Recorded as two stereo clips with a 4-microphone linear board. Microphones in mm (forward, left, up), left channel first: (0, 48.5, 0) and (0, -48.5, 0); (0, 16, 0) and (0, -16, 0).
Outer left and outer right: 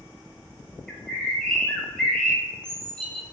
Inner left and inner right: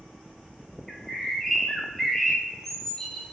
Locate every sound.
0.9 s a bird: 10° left (ahead or behind), 0.6 m